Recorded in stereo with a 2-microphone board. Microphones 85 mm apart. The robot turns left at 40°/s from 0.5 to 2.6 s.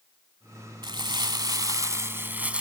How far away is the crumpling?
About 0.8 m.